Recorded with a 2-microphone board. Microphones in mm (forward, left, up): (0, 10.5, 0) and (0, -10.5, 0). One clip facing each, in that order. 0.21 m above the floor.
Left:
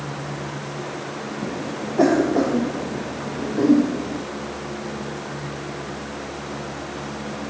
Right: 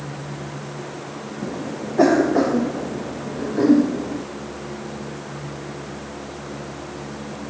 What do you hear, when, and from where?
1.4 s a cough: 15° right (ahead or behind)